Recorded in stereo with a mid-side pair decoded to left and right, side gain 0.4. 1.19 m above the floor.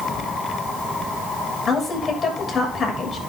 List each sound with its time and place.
1.7 s a woman speaking: 40° left, 7 m